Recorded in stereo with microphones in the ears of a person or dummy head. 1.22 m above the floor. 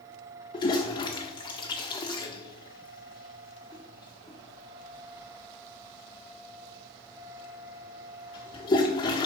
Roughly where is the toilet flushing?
Left.